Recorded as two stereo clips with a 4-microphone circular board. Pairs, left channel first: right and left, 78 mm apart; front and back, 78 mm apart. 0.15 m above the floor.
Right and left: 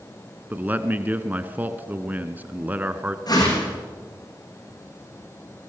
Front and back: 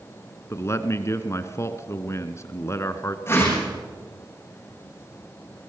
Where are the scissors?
No scissors in this recording.